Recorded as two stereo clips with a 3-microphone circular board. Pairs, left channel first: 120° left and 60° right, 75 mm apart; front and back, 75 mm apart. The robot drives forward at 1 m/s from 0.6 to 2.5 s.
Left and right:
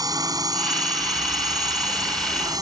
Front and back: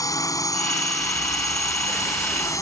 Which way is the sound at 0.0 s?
35° right.